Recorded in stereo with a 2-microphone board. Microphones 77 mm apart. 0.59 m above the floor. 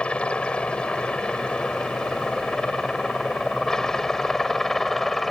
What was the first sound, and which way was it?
A helicopter, 15° left (ahead or behind).